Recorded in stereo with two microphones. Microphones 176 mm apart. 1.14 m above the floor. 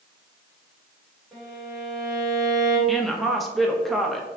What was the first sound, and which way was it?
A violin, centre (ahead or behind).